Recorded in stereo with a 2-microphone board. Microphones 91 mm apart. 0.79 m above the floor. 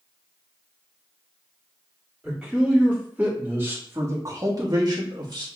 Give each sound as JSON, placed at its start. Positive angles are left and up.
{"t": 2.2, "sound": "a man speaking", "side_deg": -10, "distance_m": 2.0}